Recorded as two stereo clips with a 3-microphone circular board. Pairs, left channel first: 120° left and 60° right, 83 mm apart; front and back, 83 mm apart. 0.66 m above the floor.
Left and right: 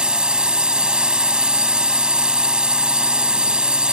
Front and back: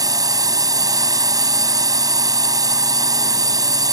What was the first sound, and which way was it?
A drone, 140° right.